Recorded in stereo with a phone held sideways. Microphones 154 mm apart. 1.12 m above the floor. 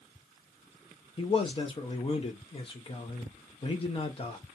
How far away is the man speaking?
About 0.5 m.